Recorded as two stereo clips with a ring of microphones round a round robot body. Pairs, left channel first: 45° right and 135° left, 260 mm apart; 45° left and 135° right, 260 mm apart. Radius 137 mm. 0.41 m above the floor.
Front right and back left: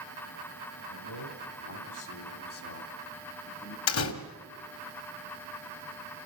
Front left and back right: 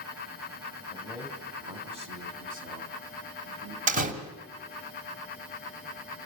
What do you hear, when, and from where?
0.9 s a man speaking: 45° right, 2.5 m; by 3.8 s 95° right, 3.5 m
3.9 s a door slam: 75° right, 1.7 m